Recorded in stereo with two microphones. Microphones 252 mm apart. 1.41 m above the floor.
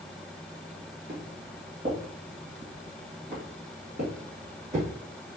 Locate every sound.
1.1 s footsteps: 40° right (ahead or behind), 1.8 m